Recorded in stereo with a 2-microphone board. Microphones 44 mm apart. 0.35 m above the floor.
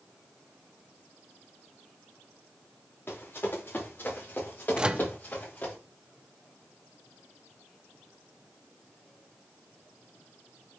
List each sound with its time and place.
3.1 s running footsteps: 50° left (ahead or behind), 5 m; by 5.8 s 35° left (ahead or behind), 6 m
4.8 s a microwave: 20° right (ahead or behind), 0.6 m